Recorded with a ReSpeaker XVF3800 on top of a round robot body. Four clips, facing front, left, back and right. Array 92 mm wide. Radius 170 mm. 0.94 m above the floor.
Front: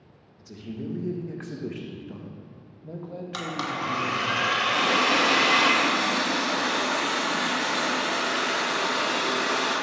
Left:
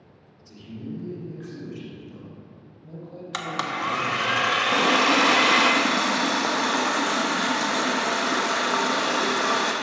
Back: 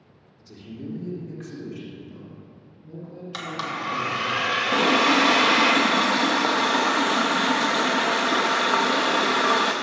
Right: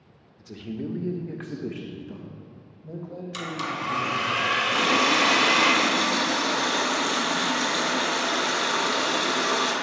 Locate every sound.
0.4 s a man speaking: 85° right, 1.5 m; by 4.3 s 5° right, 2.5 m
3.3 s a blender: 85° left, 1.0 m
4.7 s a running tap: 150° left, 0.6 m